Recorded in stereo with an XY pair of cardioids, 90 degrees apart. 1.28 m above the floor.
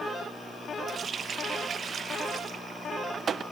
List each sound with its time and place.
0.9 s a running tap: 55° right, 0.7 m